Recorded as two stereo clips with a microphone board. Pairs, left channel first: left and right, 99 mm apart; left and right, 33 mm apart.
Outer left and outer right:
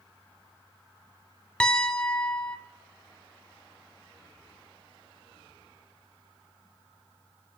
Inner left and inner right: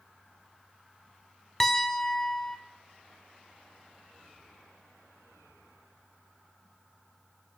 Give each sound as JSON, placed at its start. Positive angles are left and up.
{"t": 1.6, "sound": "a piano", "side_deg": 10, "distance_m": 1.9}